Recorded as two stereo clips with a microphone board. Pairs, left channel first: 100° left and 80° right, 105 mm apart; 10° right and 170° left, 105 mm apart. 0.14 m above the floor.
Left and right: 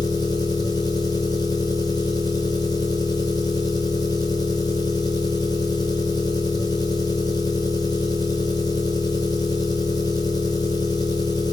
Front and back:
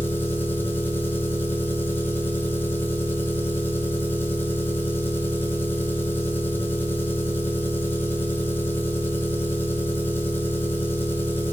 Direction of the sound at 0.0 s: 55° left.